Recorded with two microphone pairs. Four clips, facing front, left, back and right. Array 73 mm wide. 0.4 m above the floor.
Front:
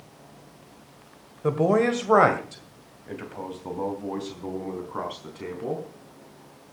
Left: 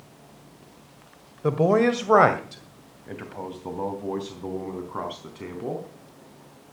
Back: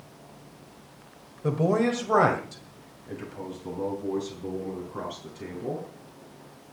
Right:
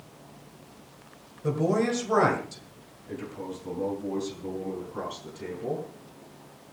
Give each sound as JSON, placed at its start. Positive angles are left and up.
{"t": 1.4, "sound": "a man speaking", "azimuth_deg": 60, "distance_m": 1.6}